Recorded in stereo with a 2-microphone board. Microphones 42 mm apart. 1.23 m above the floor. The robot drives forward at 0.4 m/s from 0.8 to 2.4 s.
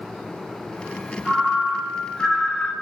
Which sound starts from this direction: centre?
A ringtone, at 1.2 s.